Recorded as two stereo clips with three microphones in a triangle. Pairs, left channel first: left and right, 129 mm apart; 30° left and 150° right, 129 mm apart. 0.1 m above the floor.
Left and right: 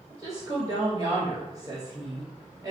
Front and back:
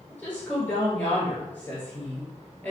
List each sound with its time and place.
0.1 s a woman speaking: 40° right, 1.7 m